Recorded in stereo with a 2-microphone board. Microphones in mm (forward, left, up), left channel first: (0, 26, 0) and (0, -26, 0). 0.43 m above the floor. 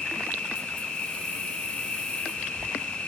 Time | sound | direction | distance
0.0 | an insect | 20° left (ahead or behind) | 7.5 m